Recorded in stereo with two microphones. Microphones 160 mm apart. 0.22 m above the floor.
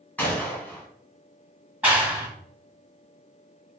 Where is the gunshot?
10° left (ahead or behind), 1.2 m.